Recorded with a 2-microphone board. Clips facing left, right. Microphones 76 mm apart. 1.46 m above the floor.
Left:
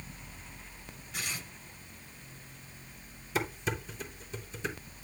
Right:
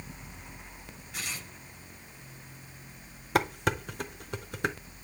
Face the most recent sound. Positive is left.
turn(degrees=-60)  # may be behind; listen again after turning